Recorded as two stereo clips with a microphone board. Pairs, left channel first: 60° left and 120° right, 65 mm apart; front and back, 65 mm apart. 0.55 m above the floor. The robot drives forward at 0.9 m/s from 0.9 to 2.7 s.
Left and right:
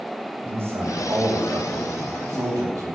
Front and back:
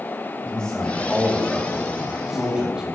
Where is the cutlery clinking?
No cutlery clinking in this recording.